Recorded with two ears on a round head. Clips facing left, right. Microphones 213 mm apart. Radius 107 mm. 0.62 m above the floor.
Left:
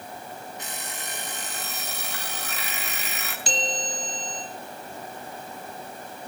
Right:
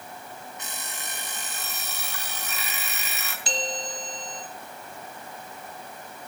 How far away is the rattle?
No rattle in this recording.